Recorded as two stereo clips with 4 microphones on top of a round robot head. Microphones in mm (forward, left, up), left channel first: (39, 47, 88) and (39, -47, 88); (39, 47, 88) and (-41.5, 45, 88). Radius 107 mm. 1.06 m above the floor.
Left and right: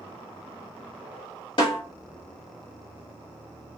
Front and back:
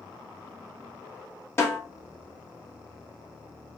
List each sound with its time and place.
1.6 s a snare drum: 60° left, 1.4 m